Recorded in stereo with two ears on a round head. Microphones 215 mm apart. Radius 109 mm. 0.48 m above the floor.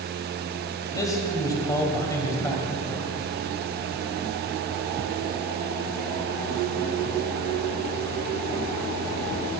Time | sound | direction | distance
0.9 | a man speaking | 15° left (ahead or behind) | 2.5 m